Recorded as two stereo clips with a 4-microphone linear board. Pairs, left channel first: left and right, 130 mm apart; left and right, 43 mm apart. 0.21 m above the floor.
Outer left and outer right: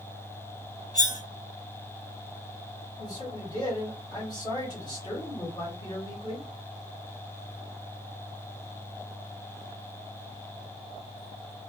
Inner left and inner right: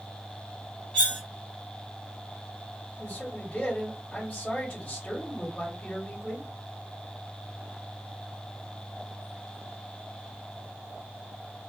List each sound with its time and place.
0.9 s cutlery clinking: 30° left (ahead or behind), 1.3 m
3.0 s a man speaking: 30° left (ahead or behind), 1.5 m